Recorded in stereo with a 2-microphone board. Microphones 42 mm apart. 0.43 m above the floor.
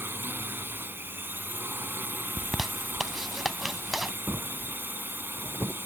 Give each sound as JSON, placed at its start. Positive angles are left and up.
{"t": 0.0, "sound": "a drone", "side_deg": -65}
{"t": 2.4, "sound": "a zipper", "side_deg": -5}
{"t": 4.3, "sound": "a drawer", "side_deg": -55}